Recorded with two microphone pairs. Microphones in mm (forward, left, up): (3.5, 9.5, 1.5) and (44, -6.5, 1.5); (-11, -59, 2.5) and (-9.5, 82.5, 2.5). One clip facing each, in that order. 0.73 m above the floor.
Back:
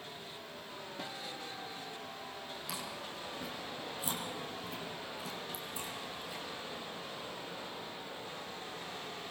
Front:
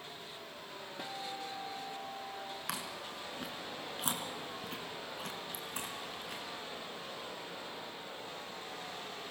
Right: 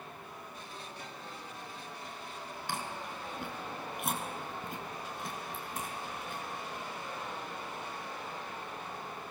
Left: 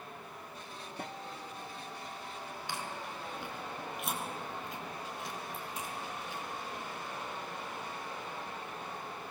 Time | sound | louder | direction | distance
1.0 | a guitar | front 3 dB, left 3 dB | 65° left | 1.0 m
2.7 | chewing | even, right 2 dB | 50° right | 3.5 m